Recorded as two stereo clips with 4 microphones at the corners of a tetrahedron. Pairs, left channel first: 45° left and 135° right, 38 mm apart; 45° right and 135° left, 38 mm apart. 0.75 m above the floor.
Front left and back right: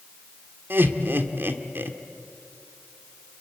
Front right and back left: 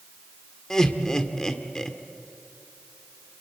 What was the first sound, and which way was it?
Laughter, 120° right.